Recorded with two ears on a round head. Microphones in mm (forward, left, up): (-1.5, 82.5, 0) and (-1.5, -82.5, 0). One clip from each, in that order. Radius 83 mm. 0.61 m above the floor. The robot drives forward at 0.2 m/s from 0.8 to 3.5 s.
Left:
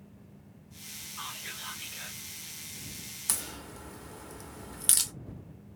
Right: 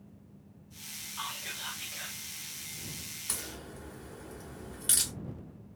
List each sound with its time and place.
1.2 s whispering: 10° right (ahead or behind), 1.3 m
3.3 s a crack: 40° left (ahead or behind), 0.6 m